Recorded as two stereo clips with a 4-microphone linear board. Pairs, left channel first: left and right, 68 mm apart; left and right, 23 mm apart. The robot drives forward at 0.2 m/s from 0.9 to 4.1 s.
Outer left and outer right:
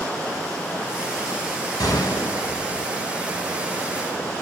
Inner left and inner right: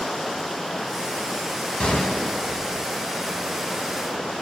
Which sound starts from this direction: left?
A gunshot, at 1.8 s.